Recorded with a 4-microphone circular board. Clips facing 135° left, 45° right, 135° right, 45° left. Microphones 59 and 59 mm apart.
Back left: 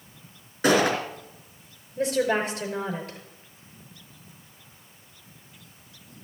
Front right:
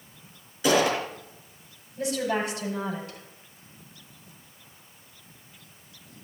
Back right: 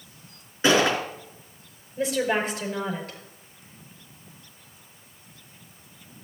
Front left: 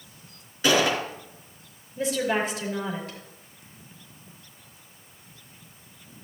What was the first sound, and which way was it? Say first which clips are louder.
A gunshot: back left 1 dB, back right 2 dB; 160° left.